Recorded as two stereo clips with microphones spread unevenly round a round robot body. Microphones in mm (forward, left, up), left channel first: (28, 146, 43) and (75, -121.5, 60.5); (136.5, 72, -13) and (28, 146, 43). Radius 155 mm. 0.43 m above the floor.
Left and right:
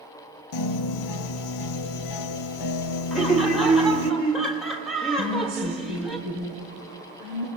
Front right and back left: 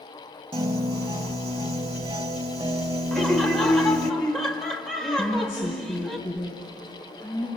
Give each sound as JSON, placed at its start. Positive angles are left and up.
{"t": 0.5, "sound": "a piano", "azimuth_deg": 105, "distance_m": 1.4}
{"t": 3.1, "sound": "laughter", "azimuth_deg": 15, "distance_m": 1.4}
{"t": 5.2, "sound": "a woman speaking", "azimuth_deg": -120, "distance_m": 4.5}